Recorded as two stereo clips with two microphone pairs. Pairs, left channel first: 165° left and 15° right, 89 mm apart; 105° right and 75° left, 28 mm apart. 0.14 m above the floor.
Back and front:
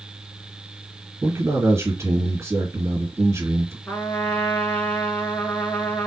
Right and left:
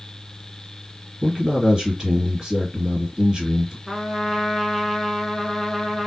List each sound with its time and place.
1.2 s a man speaking: 15° left, 2.5 m
3.9 s a trumpet: 155° left, 1.1 m